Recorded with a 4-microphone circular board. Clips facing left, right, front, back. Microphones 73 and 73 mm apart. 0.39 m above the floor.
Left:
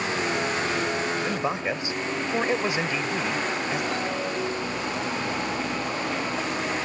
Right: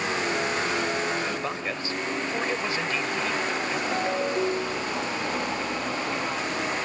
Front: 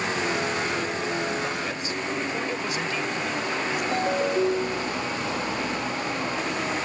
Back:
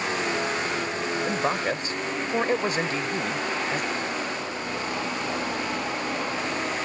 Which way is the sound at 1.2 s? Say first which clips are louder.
Left 3 dB, back 3 dB; 150° left.